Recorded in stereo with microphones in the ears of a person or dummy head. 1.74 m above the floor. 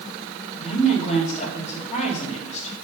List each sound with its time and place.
0.6 s a woman speaking: 40° left (ahead or behind), 3.5 m